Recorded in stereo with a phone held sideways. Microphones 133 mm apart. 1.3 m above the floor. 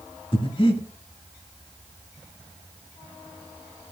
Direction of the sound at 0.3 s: 40° left (ahead or behind).